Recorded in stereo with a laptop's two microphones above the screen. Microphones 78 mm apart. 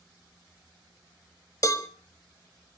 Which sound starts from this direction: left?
A cowbell, at 1.6 s.